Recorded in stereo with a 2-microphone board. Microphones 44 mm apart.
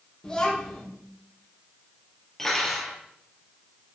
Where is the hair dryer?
No hair dryer in this recording.